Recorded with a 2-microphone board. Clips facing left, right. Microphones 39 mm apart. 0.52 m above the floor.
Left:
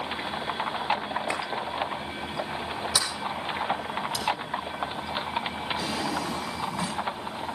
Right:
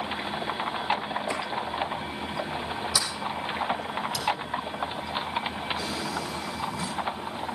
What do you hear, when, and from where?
1.3 s a clap: 60° left (ahead or behind), 6.5 m
2.9 s a sliding door: 50° left (ahead or behind), 6.5 m
5.8 s a drawer: 75° left (ahead or behind), 2.5 m